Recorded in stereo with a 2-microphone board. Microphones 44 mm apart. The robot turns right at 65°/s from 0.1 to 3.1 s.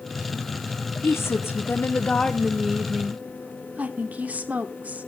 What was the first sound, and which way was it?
A woman speaking, 85° left.